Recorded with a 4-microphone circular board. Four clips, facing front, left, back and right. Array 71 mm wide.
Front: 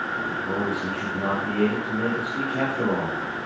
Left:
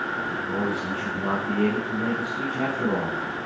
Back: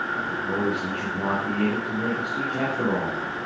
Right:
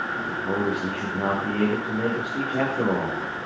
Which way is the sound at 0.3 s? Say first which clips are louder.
Right 1 dB, back 1 dB; 80° right.